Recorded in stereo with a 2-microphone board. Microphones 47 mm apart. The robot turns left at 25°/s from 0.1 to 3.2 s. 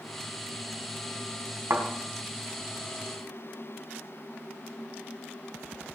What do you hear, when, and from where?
1.7 s a thud: 70° right (ahead or behind), 3.5 m